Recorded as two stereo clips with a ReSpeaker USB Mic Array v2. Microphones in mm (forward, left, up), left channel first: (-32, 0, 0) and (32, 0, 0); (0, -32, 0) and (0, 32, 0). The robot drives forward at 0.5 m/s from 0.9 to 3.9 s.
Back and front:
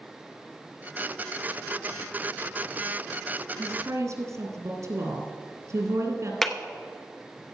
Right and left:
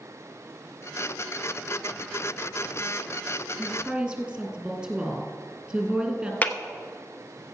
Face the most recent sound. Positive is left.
turn(degrees=-105)